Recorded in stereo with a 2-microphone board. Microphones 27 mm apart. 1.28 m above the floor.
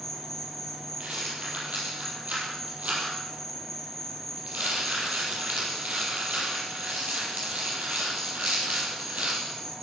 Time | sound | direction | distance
0.0 | an insect | 10° left (ahead or behind) | 1.8 m
1.0 | a rattle | 65° right (ahead or behind) | 5.5 m